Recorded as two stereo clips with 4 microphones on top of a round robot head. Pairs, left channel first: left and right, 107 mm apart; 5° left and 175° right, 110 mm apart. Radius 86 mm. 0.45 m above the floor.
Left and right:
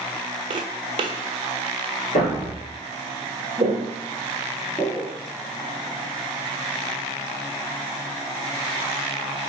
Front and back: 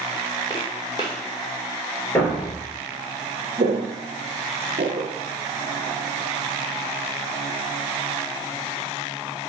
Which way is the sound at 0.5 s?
60° right.